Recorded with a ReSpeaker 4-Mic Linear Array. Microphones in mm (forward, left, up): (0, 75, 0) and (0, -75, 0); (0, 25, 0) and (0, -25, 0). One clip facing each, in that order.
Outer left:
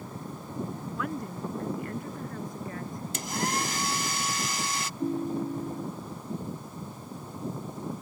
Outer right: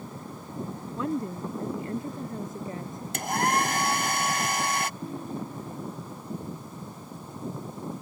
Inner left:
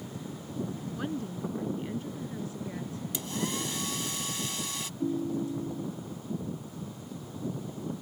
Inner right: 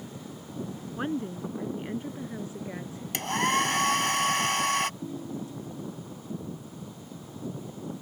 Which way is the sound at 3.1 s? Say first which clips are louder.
Outer right 6 dB, inner right 9 dB; 60° right (ahead or behind).